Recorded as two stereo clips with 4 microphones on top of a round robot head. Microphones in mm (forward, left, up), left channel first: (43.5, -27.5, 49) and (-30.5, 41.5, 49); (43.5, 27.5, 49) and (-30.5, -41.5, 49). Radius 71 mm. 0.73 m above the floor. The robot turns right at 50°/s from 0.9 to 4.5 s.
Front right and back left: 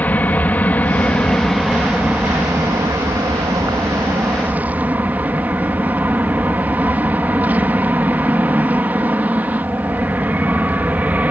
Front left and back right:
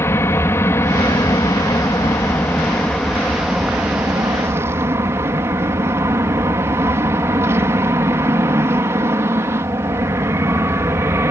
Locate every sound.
0.0 s an aircraft: 15° left; by 11.3 s 165° right